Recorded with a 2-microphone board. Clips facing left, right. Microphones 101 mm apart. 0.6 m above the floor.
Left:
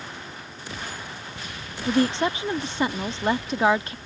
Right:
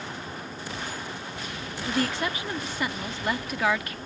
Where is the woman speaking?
25° left (ahead or behind).